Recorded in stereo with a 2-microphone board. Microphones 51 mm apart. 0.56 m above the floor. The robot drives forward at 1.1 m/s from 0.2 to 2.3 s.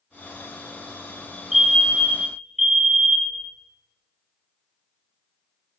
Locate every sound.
1.5 s a fire alarm: 5° right (ahead or behind), 4 m